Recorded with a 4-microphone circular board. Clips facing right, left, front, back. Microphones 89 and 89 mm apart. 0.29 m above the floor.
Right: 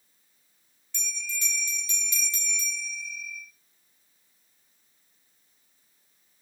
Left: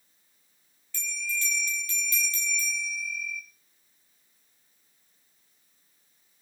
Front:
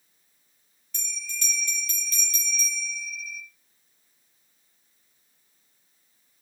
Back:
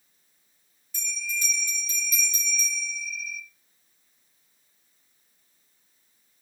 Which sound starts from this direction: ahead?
A bell, at 0.9 s.